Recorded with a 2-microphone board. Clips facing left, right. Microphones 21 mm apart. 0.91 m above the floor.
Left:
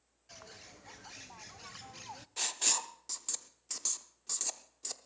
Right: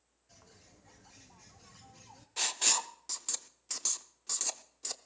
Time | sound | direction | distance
0.3 | a bird | 55° left (ahead or behind) | 0.5 m
2.4 | writing | 10° right (ahead or behind) | 0.7 m